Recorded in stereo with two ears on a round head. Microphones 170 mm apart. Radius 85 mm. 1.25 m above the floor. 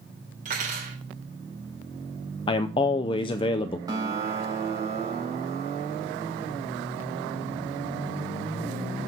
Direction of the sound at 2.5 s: 30° left (ahead or behind).